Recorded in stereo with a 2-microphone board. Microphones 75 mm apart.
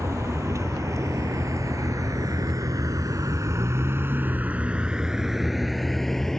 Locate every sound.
0.0 s a vehicle: 40° right (ahead or behind); by 6.4 s 5° left (ahead or behind)